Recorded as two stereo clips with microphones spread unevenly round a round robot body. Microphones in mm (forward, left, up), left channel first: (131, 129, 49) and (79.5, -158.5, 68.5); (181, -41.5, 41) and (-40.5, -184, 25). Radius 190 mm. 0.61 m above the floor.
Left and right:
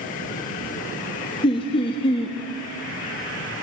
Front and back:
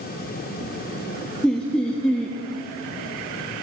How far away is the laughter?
About 0.7 m.